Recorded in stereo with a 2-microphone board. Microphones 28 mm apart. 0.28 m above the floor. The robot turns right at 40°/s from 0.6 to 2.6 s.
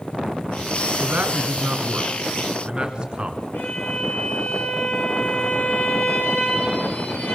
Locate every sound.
1.0 s a man speaking: 70° right (ahead or behind), 3 m; by 3.4 s 30° right (ahead or behind), 3 m
3.5 s a violin: 80° left, 6.5 m